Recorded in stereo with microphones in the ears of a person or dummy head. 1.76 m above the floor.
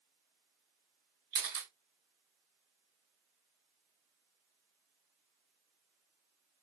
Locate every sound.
1.3 s a camera shutter: 25° right (ahead or behind), 1.9 m